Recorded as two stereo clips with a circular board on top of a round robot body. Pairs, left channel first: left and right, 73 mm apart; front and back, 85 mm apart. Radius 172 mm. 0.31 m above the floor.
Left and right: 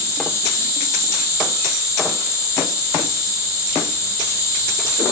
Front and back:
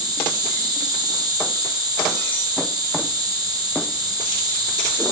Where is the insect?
140° left, 5.5 m.